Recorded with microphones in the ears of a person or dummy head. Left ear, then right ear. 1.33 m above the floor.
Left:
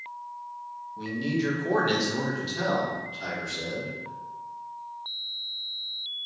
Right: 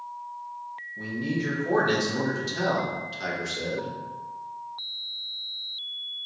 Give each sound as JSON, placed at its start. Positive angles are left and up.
{"t": 1.0, "sound": "a man speaking", "side_deg": 35, "distance_m": 1.1}